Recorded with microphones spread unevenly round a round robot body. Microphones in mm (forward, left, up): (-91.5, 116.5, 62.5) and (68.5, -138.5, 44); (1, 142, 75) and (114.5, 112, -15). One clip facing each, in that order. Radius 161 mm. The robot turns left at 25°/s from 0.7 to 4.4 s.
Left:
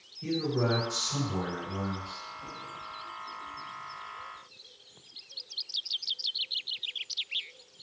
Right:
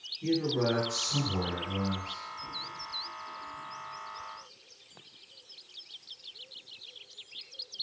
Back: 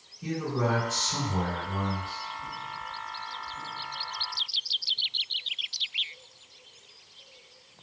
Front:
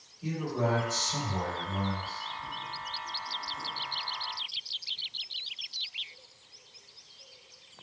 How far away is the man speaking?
About 1.7 m.